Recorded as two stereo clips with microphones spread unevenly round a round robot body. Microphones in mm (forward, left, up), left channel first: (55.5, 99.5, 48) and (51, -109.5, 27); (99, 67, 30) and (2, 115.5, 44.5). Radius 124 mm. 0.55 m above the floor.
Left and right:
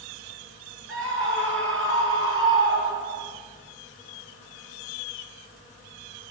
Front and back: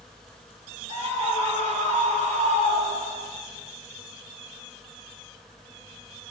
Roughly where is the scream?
Ahead right.